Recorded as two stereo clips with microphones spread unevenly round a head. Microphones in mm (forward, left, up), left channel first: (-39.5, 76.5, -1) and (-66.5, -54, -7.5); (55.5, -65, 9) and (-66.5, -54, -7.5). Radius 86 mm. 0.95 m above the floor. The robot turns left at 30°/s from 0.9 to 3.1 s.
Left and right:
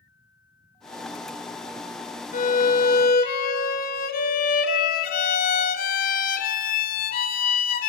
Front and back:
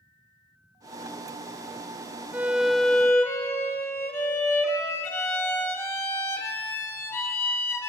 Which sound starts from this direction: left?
A violin, at 2.3 s.